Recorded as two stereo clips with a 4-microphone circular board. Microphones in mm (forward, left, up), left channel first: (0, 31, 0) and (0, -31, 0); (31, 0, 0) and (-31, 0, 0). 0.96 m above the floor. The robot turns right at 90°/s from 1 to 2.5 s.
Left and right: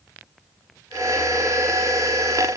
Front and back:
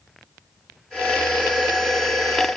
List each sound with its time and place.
Only background noise.